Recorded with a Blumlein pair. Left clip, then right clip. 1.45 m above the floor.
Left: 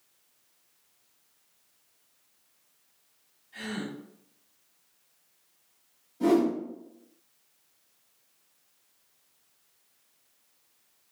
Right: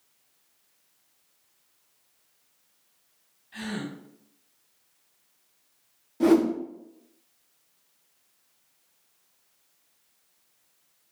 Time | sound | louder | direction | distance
3.5 | a gasp | right 1 dB | 50° right | 1.4 m
6.2 | a whoosh | right 3 dB | 35° right | 0.9 m